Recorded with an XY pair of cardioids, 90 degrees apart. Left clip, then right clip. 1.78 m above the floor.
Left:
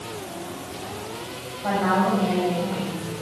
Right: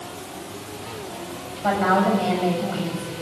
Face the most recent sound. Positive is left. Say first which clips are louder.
# right 2 dB
turn(degrees=-45)